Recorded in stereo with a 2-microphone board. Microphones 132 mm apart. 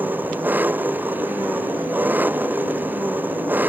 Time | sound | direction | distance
0.0 | an engine running | 15° right (ahead or behind) | ?